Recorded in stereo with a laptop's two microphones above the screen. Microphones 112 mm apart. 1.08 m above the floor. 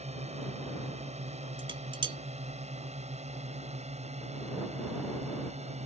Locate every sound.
0.0 s a drone: 75° right (ahead or behind)
1.6 s dishes clattering: 50° right (ahead or behind)